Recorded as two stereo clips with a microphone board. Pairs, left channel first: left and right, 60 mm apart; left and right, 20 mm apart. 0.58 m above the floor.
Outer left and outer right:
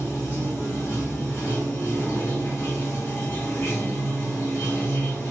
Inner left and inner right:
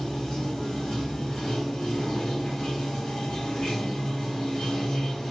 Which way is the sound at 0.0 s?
50° left (ahead or behind).